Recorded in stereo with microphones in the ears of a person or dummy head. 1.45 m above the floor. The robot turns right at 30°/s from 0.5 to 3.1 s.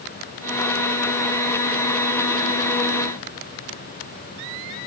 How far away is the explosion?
I don't hear an explosion.